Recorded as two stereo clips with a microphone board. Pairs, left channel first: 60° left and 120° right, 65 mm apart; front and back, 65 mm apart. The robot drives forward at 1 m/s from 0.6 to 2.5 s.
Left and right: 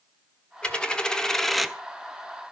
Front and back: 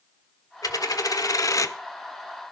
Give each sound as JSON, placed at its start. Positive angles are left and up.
{"t": 0.6, "sound": "a dropped coin", "azimuth_deg": -10, "distance_m": 1.6}